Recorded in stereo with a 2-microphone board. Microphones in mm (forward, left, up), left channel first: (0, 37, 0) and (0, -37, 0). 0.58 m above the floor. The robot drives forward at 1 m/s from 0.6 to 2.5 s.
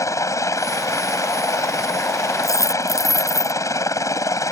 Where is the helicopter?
50° left (ahead or behind).